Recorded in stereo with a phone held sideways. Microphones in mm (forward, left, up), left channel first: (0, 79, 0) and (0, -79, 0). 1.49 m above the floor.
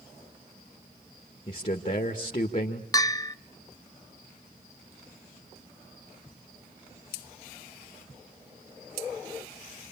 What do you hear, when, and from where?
1.5 s a man speaking: 45° left (ahead or behind), 1.9 m
2.9 s a bell: 25° left (ahead or behind), 0.5 m